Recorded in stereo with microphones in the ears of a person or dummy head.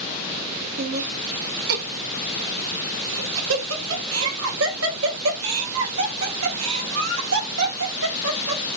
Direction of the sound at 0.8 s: 70° right (ahead or behind).